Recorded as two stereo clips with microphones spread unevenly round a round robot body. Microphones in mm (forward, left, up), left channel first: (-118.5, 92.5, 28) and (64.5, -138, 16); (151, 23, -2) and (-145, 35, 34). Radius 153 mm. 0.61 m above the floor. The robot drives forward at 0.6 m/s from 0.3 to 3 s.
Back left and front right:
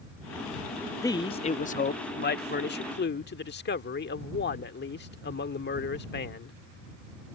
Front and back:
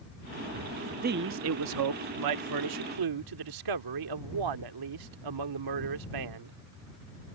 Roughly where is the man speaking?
Behind.